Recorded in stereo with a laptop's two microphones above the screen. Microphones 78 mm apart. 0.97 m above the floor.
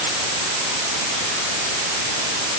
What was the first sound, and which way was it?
Only background noise.